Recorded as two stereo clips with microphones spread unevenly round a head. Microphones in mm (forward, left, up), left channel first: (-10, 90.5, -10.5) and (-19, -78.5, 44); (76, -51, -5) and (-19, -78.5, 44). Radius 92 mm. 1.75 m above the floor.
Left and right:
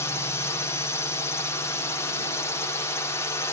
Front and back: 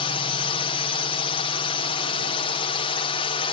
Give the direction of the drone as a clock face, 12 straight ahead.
11 o'clock.